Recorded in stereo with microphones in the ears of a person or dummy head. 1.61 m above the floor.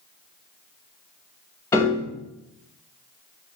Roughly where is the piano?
Centre.